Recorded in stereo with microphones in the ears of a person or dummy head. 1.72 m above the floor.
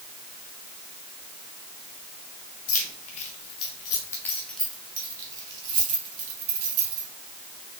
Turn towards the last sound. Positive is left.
turn(degrees=-55)  # may be behind; listen again after turning